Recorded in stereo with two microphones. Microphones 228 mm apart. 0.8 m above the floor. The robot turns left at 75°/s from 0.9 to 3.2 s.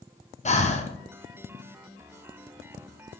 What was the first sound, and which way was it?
Breathing, 30° left (ahead or behind).